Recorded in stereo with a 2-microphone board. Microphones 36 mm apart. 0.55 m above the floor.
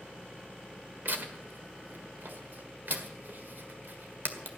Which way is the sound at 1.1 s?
55° right (ahead or behind).